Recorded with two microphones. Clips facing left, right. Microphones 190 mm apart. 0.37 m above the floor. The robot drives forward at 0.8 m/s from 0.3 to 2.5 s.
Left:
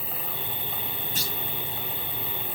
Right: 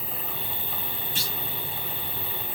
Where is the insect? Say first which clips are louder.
Even; 55° left (ahead or behind), 3.5 m; by 2.6 s 45° left (ahead or behind), 4 m.